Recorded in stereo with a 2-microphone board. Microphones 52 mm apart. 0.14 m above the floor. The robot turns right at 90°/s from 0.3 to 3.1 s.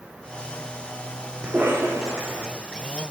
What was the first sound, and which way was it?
A cough, 155° right.